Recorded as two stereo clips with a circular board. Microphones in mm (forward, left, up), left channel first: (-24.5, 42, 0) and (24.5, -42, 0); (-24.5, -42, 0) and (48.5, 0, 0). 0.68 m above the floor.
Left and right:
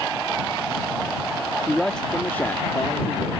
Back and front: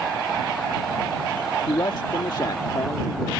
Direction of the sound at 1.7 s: 150° right.